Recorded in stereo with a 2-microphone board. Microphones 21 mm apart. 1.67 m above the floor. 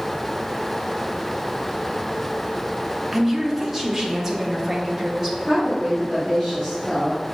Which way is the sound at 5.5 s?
10° right (ahead or behind).